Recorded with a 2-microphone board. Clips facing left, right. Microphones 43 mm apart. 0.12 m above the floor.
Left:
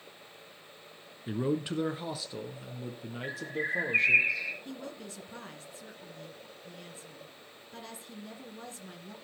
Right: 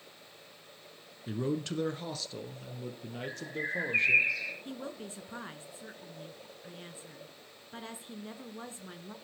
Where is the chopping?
No chopping in this recording.